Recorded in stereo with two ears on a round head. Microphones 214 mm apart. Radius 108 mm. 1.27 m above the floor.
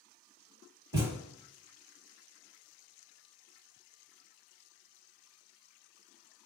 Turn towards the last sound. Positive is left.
turn(degrees=-15)  # may be behind; listen again after turning